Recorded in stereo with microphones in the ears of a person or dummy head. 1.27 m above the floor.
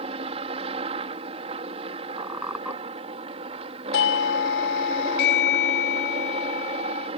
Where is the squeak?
5° right (ahead or behind).